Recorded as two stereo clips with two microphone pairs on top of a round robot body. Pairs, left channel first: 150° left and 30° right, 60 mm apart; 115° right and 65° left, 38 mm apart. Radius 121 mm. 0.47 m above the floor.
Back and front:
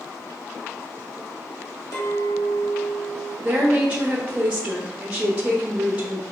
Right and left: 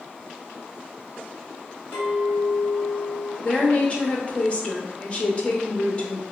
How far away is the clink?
About 1.8 m.